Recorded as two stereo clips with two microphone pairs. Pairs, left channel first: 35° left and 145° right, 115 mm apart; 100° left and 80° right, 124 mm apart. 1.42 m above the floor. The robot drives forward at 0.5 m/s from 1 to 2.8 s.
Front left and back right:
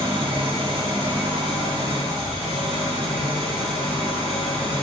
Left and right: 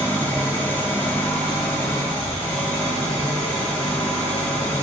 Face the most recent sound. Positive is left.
turn(degrees=175)